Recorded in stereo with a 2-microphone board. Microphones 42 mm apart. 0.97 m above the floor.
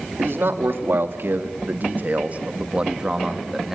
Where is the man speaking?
75° right (ahead or behind), 2.5 m; by 3.8 s 5° right (ahead or behind), 1.9 m.